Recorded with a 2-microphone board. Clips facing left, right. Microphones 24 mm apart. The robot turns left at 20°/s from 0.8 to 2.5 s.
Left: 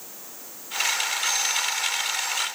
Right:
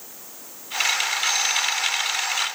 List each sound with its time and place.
Only background noise.